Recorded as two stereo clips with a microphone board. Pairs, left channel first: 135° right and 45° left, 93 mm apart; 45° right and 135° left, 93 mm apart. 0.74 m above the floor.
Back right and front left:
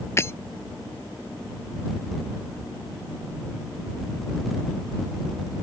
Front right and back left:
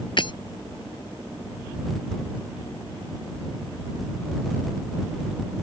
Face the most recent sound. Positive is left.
turn(degrees=-75)